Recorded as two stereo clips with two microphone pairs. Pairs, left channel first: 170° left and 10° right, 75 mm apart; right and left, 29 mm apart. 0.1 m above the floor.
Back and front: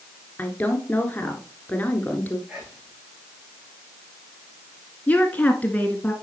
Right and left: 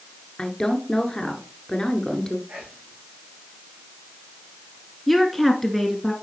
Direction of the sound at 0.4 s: 140° right.